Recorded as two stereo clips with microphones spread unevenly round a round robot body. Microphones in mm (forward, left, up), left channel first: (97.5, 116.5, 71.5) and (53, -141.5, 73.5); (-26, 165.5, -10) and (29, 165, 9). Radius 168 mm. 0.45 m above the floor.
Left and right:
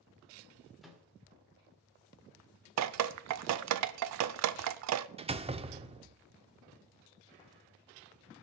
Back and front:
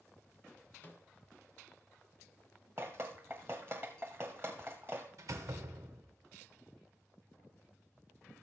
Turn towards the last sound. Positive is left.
turn(degrees=-35)